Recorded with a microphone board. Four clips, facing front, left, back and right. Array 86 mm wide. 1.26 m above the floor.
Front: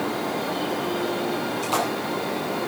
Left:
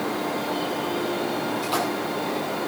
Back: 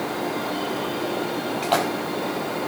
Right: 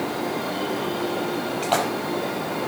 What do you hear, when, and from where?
1.6 s a splash: 140° right, 5 m